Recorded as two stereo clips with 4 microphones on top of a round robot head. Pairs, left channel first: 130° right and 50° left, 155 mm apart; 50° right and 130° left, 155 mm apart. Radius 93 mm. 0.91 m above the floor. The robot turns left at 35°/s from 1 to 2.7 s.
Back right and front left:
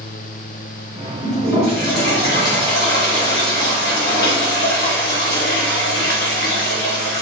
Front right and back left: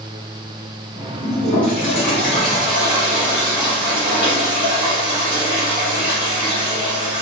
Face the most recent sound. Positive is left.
turn(degrees=-150)